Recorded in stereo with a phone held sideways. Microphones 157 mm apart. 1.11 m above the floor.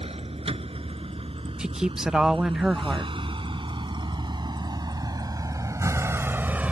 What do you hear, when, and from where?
0.0 s a vehicle: 40° right (ahead or behind); by 6.7 s 10° right (ahead or behind)
1.6 s a woman speaking: 5° right (ahead or behind)